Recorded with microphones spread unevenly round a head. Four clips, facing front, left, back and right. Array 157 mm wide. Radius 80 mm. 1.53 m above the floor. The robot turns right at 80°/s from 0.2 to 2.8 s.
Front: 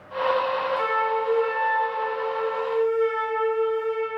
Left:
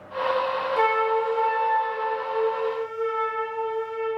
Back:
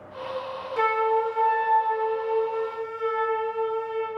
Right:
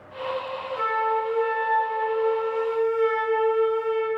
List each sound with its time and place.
0.8 s a flute: 120° left, 1.0 m; by 4.2 s 80° right, 1.0 m